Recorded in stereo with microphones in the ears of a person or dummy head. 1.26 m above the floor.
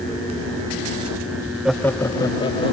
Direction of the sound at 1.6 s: 5° right (ahead or behind).